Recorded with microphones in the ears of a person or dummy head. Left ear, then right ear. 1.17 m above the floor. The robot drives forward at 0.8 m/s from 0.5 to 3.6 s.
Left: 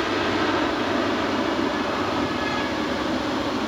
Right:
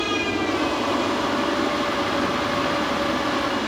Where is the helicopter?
55° left (ahead or behind); by 3.7 s 60° left (ahead or behind).